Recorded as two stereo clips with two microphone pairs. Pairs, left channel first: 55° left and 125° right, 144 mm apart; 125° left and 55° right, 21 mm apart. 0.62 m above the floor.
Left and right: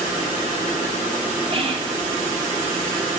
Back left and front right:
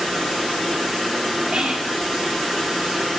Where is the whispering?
85° right, 1.0 m.